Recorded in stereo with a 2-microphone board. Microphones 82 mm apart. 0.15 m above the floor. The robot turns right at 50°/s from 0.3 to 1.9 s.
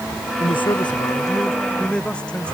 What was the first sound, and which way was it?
A man speaking, 90° left.